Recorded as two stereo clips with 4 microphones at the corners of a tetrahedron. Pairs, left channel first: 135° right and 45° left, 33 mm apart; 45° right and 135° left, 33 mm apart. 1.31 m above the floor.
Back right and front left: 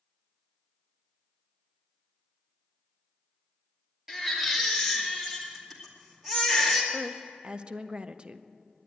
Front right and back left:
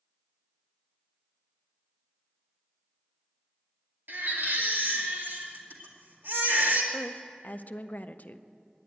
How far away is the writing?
No writing in this recording.